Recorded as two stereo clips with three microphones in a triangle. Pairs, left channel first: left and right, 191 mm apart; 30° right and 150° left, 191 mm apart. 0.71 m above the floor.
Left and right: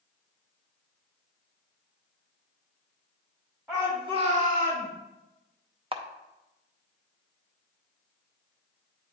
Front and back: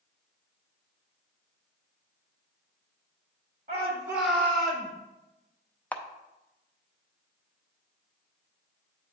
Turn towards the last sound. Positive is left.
turn(degrees=-105)